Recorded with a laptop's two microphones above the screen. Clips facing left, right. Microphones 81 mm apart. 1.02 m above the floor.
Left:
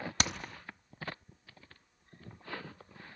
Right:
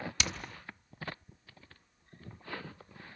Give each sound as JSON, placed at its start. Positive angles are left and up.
{"t": 0.2, "sound": "hammering", "side_deg": 45, "distance_m": 1.1}